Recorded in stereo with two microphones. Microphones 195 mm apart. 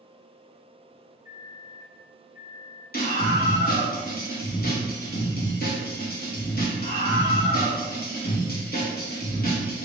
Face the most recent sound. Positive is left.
turn(degrees=50)  # may be behind; listen again after turning